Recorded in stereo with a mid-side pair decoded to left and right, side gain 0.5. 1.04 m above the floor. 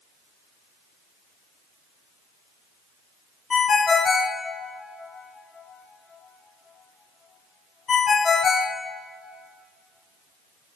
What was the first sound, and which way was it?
A ringtone, 35° left.